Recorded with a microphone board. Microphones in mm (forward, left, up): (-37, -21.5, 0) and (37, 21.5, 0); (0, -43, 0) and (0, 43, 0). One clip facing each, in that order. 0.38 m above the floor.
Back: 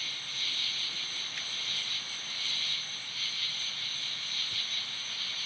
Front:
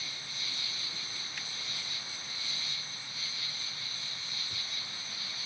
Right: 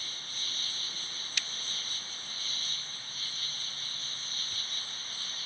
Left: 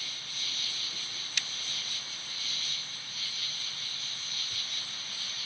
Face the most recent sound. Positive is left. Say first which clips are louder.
# back 2 dB, left 1 dB
turn(degrees=-40)